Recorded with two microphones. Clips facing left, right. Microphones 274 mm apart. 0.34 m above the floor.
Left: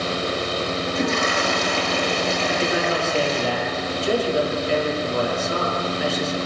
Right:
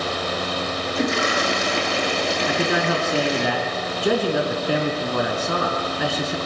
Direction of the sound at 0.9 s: 15° right (ahead or behind).